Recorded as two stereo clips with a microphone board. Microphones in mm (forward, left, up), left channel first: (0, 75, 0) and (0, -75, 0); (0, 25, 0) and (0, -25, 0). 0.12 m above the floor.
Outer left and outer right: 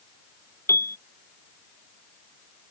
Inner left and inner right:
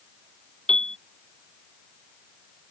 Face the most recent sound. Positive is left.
turn(degrees=15)  # may be behind; listen again after turning